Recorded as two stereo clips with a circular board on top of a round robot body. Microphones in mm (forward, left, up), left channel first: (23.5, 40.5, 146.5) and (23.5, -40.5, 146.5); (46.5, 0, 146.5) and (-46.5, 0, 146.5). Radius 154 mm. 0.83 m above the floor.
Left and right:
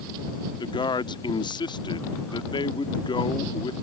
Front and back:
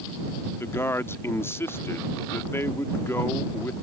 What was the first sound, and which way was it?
A man speaking, 65° left.